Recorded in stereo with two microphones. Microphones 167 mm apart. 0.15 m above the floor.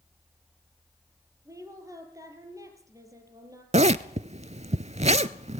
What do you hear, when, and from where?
1.4 s a woman speaking: 20° right (ahead or behind), 4.5 m
3.7 s a zipper: 45° right (ahead or behind), 0.5 m